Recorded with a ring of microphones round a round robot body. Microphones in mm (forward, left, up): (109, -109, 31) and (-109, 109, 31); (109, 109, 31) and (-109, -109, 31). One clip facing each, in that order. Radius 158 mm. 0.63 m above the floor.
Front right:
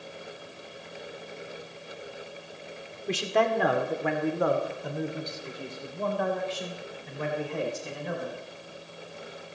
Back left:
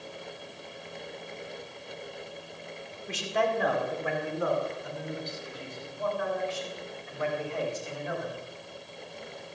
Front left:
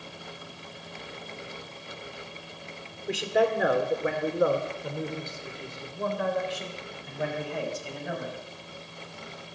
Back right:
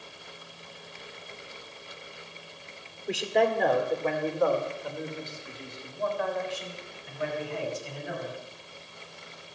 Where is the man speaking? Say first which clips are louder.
Front right 4 dB, front left 1 dB; 45° right, 2 m; by 8.4 s 10° left, 4.5 m.